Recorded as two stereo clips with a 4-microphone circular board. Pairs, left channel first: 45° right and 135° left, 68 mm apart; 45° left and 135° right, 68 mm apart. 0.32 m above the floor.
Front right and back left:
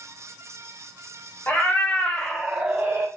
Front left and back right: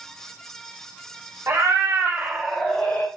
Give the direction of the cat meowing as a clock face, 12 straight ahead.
3 o'clock.